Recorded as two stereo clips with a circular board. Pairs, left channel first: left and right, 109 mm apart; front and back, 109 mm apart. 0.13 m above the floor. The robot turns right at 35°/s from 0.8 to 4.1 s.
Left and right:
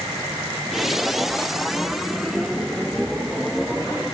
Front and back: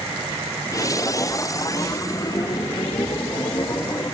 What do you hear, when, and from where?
Only background noise.